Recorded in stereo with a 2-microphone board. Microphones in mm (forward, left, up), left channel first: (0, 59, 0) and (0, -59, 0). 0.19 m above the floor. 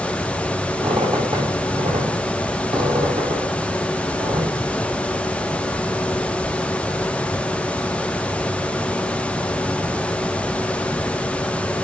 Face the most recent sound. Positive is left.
turn(degrees=-45)  # may be behind; listen again after turning